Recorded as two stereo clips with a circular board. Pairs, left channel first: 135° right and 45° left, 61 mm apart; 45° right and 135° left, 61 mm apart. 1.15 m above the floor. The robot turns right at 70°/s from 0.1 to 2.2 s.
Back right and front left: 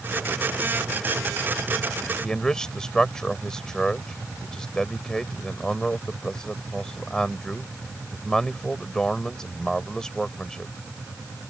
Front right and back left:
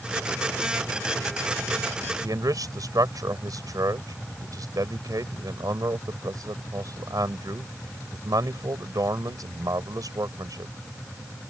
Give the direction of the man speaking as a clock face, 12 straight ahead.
7 o'clock.